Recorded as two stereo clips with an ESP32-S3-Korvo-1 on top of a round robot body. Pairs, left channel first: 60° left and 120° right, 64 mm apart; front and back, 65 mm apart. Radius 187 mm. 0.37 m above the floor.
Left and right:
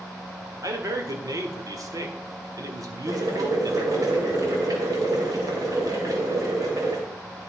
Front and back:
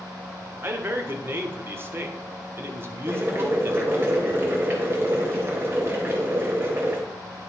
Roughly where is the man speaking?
Behind right.